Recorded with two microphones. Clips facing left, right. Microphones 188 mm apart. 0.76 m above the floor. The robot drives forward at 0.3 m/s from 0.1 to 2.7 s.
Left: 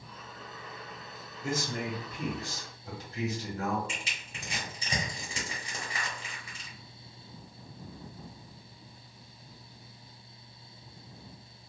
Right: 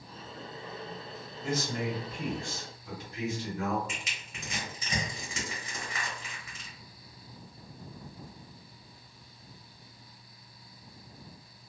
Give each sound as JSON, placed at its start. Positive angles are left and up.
{"t": 1.4, "sound": "a man speaking", "side_deg": 45, "distance_m": 1.3}
{"t": 3.9, "sound": "crushing", "side_deg": 30, "distance_m": 1.3}